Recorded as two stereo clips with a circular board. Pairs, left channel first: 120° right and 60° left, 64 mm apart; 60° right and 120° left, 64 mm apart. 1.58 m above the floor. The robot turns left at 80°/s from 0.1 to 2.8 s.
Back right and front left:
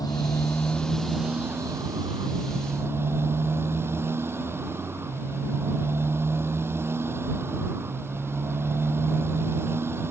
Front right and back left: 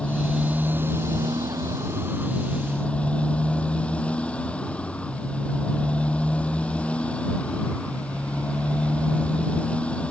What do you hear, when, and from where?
0.0 s a motorcycle: 135° right; by 10.1 s 10° left